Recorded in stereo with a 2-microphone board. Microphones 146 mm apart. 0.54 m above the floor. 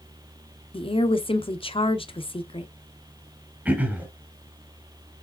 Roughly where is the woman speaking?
Left.